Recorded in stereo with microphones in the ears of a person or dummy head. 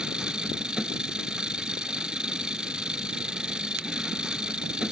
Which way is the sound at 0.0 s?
5° right (ahead or behind).